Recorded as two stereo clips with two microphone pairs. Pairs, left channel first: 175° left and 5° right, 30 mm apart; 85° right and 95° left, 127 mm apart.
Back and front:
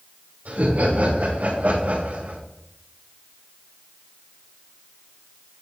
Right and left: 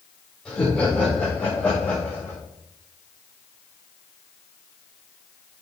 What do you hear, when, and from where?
0.5 s laughter: straight ahead, 7 m; by 2.4 s 5° right, 6 m